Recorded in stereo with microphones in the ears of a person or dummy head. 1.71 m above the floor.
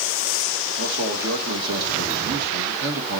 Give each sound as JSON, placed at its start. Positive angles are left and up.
{"t": 0.8, "sound": "a man speaking", "side_deg": -60, "distance_m": 2.0}